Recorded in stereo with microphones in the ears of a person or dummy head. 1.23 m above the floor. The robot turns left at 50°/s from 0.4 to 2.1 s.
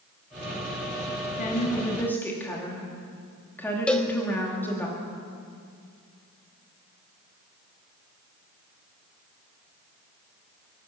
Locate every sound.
1.4 s a woman speaking: 45° left, 2 m; by 4.9 s 10° left, 2 m
3.9 s a cowbell: 5° left (ahead or behind), 0.9 m